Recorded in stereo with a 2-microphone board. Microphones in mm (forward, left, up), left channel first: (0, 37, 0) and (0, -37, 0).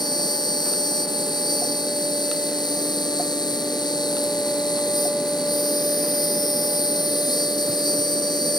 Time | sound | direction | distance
0.0 | an insect | 70° left (ahead or behind) | ?